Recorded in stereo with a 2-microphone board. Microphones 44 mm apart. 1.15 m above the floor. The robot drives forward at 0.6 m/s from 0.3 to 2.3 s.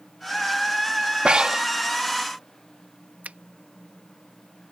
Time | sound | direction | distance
1.2 | breathing | 20° right (ahead or behind) | ?
3.2 | a finger snap | 35° right (ahead or behind) | ?